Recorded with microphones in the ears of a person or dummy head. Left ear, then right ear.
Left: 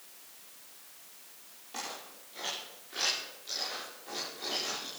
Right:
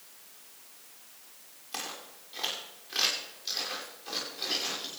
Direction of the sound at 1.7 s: 55° right (ahead or behind).